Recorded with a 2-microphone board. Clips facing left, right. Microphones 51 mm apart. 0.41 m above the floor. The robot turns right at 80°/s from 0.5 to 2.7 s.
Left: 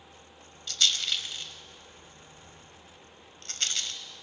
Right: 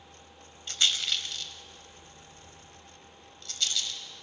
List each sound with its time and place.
0.7 s a rattle: 35° right (ahead or behind), 0.8 m; by 4.0 s 50° left (ahead or behind), 0.8 m